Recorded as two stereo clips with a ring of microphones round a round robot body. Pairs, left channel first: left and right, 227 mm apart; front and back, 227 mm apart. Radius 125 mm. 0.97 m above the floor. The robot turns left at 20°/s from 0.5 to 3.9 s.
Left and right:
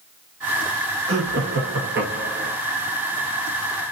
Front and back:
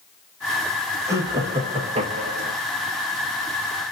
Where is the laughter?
105° right, 1.3 m; by 2.5 s 135° right, 1.3 m.